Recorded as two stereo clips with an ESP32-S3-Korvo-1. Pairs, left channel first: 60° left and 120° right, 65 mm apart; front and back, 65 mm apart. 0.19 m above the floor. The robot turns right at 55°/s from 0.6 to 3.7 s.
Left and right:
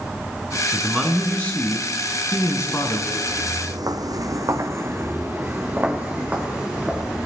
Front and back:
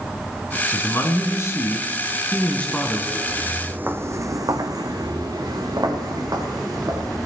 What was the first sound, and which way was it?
A man speaking, 40° right.